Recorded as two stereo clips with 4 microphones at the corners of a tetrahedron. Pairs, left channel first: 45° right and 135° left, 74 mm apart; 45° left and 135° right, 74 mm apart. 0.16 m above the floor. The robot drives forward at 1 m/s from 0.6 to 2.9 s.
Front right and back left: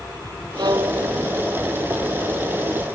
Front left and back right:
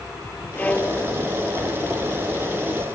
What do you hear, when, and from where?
0.6 s a violin: 115° left; by 1.2 s 120° left